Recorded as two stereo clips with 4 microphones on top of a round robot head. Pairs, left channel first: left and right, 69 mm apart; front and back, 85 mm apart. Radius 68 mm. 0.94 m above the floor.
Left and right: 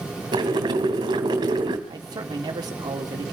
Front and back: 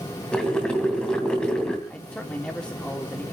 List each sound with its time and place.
0.3 s boiling: 80° right, 2.5 m
1.9 s a man speaking: 80° right, 3.5 m